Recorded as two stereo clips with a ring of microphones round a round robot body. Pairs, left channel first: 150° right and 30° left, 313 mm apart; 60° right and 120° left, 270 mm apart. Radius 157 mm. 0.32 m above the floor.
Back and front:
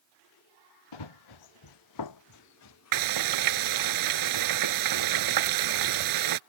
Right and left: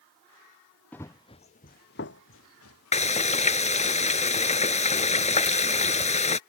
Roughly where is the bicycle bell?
No bicycle bell in this recording.